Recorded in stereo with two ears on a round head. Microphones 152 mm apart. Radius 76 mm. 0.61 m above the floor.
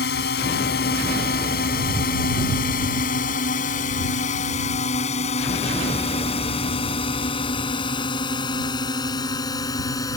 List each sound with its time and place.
0.0 s a drone: 70° left (ahead or behind); by 10.2 s 20° left (ahead or behind)